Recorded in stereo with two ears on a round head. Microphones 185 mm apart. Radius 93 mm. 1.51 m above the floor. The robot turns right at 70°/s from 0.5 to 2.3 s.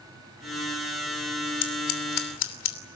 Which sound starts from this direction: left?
Scissors, at 1.6 s.